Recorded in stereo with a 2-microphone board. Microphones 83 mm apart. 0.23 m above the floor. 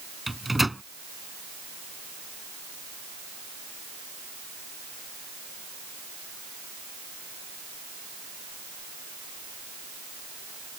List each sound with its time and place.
0.3 s a microwave: centre (ahead or behind)